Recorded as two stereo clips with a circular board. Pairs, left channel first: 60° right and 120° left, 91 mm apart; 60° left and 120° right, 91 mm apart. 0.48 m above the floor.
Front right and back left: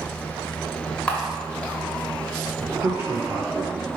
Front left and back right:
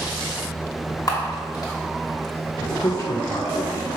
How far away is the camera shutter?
About 1.2 m.